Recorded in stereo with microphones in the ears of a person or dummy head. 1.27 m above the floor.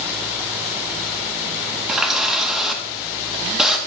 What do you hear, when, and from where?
1.9 s a running tap: 5° right (ahead or behind), 0.6 m